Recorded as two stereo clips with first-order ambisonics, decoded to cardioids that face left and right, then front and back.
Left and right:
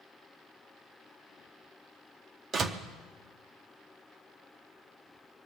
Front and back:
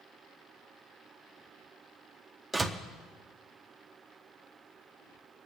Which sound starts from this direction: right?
A door slam, at 2.5 s.